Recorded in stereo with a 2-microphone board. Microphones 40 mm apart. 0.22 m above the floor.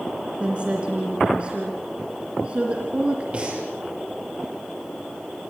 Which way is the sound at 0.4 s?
30° right (ahead or behind).